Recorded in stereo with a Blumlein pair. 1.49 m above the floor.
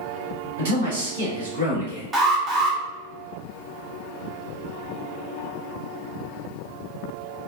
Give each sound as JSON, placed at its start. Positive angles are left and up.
{"t": 0.6, "sound": "a man speaking", "azimuth_deg": -55, "distance_m": 1.2}
{"t": 2.1, "sound": "an alarm", "azimuth_deg": -15, "distance_m": 1.0}